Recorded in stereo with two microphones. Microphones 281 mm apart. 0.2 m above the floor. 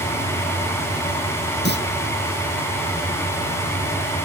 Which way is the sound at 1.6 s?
40° left (ahead or behind).